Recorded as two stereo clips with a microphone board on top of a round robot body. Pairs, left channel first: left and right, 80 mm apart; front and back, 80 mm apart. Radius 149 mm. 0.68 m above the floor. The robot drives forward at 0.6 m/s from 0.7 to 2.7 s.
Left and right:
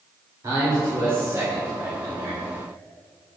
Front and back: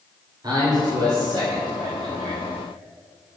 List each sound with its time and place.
0.4 s a man speaking: 145° right, 3.5 m; by 2.4 s 155° right, 4 m